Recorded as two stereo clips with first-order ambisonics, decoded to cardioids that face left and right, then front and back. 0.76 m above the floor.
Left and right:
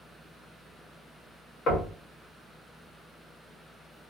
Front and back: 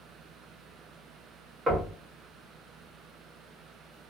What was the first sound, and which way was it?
Knocking, 120° left.